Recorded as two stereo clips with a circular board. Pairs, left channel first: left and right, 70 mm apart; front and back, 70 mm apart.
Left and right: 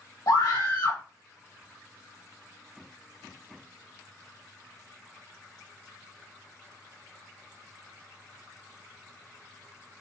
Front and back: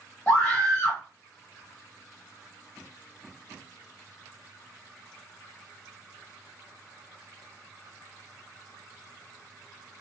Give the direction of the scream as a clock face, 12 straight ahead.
10 o'clock.